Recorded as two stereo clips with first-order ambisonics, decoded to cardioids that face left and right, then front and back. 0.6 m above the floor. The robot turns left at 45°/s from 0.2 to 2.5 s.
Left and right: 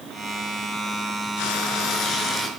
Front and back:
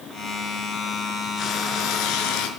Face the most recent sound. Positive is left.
turn(degrees=15)